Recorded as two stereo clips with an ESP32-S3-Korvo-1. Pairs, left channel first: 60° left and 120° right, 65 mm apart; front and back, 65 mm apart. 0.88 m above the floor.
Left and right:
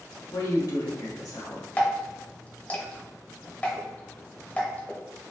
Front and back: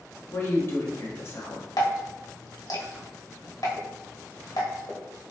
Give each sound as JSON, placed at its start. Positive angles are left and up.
{"t": 0.3, "sound": "a woman speaking", "azimuth_deg": 45, "distance_m": 1.5}
{"t": 1.8, "sound": "dripping", "azimuth_deg": -5, "distance_m": 1.1}